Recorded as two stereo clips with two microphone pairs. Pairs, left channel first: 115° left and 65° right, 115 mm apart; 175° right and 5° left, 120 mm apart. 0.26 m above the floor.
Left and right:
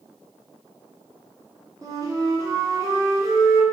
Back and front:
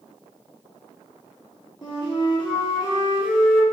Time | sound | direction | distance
1.8 | a flute | 130° right | 1.0 m